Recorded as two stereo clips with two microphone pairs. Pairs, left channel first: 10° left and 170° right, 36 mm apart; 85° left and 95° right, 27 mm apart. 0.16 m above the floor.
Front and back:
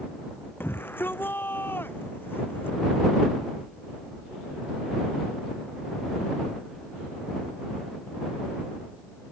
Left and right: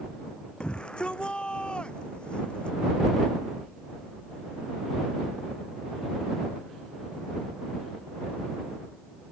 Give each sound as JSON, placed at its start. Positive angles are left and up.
{"t": 0.6, "sound": "a shout", "azimuth_deg": 30}